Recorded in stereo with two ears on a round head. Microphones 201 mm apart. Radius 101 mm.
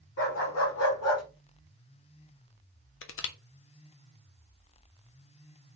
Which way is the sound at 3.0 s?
60° left (ahead or behind).